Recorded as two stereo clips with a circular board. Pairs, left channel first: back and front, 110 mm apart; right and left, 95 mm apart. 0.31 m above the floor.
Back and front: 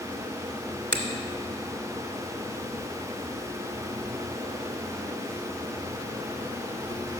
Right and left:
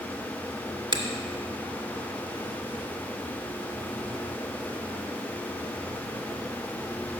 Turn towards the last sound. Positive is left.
turn(degrees=105)